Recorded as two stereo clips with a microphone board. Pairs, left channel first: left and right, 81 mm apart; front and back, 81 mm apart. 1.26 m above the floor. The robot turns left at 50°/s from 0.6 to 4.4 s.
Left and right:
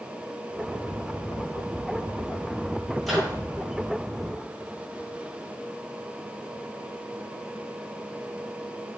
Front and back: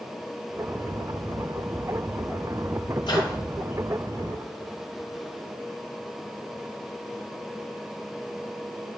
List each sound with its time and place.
3.0 s a microwave: straight ahead, 4.5 m; by 3.4 s 15° right, 4.5 m